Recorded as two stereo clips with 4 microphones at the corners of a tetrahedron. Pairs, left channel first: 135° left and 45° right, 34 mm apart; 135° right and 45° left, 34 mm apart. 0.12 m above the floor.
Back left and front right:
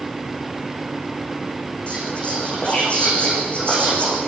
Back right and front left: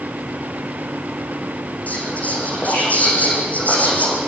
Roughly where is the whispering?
Behind.